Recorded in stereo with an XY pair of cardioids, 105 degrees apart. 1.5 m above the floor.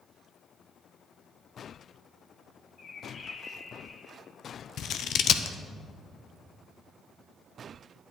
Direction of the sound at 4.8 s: 65° left.